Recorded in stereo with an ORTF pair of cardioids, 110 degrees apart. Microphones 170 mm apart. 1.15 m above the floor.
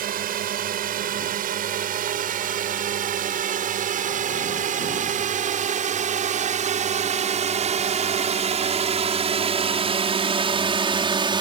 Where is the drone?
60° right; by 11.4 s 30° right.